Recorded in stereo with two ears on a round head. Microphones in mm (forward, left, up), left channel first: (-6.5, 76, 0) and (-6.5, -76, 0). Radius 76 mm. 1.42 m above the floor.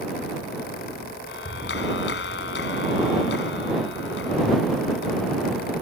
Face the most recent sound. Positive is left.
turn(degrees=70)  # may be behind; listen again after turning